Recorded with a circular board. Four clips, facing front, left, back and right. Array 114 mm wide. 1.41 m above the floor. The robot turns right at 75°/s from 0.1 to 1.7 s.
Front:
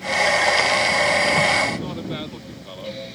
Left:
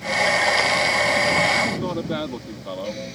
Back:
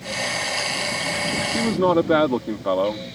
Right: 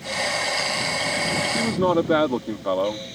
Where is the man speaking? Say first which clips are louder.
Right 4 dB, back 7 dB; 160° right; by 3.2 s 150° right.